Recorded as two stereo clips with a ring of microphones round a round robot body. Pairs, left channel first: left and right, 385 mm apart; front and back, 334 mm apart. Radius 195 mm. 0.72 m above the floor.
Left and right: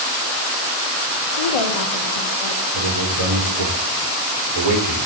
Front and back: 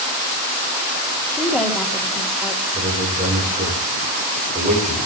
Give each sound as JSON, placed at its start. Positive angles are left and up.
{"t": 1.3, "sound": "a woman speaking", "azimuth_deg": 85, "distance_m": 2.0}
{"t": 2.7, "sound": "a man speaking", "azimuth_deg": -110, "distance_m": 2.0}